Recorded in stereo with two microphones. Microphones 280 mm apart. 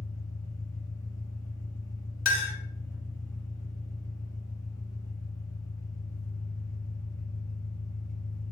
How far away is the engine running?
About 1.8 m.